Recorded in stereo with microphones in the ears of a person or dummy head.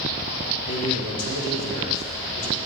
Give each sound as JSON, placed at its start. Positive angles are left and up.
{"t": 0.7, "sound": "a man speaking", "side_deg": 70, "distance_m": 1.2}